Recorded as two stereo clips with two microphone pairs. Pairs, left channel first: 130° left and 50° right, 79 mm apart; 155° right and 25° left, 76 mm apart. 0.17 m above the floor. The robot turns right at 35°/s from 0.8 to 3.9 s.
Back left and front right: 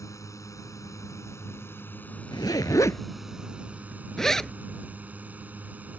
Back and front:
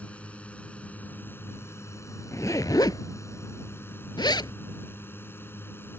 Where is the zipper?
160° left; by 4.5 s 145° right.